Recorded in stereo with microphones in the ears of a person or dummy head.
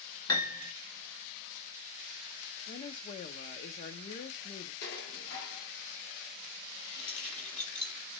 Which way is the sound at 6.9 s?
5° left (ahead or behind).